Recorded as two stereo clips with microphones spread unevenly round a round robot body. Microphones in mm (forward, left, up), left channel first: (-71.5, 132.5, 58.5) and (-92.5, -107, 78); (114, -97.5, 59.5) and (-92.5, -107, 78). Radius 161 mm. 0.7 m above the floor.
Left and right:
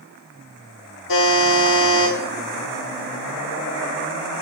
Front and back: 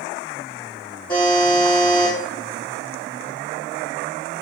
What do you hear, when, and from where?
1.1 s a buzzer: 80° left, 6 m